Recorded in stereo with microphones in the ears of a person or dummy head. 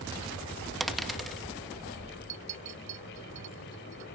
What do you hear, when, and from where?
0.8 s a dropped coin: centre (ahead or behind)
2.3 s a clink: 40° right (ahead or behind)